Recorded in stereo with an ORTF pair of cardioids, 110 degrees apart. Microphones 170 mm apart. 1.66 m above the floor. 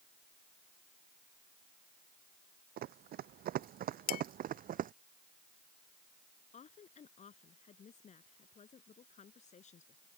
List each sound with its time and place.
2.8 s running footsteps: 70° right; by 4.9 s 55° right
4.1 s dishes clattering: 65° left
6.5 s a woman speaking: 45° left